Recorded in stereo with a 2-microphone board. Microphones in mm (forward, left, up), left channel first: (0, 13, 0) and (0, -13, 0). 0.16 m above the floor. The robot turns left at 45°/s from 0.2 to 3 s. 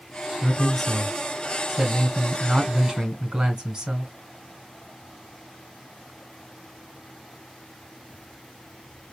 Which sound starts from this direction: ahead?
A man speaking, at 0.4 s.